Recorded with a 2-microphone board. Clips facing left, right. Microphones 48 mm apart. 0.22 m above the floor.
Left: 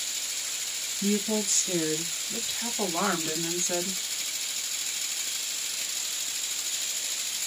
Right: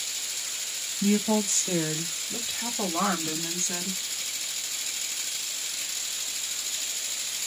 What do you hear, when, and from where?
1.0 s a woman speaking: 40° right (ahead or behind), 1.5 m; by 4.0 s 30° left (ahead or behind), 1.3 m